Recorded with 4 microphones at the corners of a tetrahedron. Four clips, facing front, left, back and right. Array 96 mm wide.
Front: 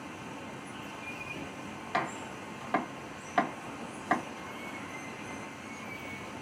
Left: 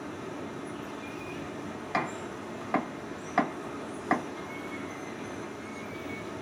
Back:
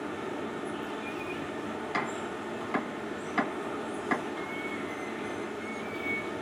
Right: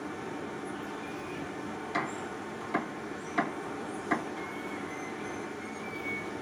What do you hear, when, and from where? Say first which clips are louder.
0.0 s running water: even, back 8 dB; straight behind, 1.1 m
1.9 s chopping: left 3 dB, front 2 dB; 65° left, 2 m